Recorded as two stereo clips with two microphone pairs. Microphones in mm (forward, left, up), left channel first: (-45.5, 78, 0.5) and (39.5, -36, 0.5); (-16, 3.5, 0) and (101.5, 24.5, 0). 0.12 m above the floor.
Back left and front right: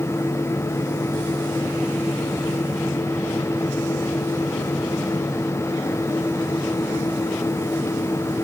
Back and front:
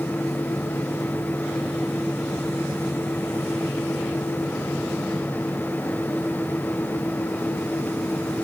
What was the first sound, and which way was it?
Only background noise.